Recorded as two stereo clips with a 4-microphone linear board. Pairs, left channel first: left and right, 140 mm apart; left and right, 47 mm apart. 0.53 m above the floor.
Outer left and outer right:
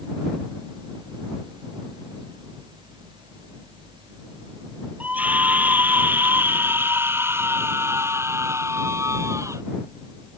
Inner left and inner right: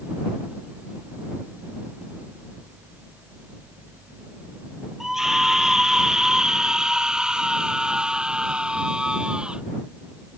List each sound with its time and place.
5.0 s a scream: 10° right (ahead or behind); by 9.6 s 20° right (ahead or behind)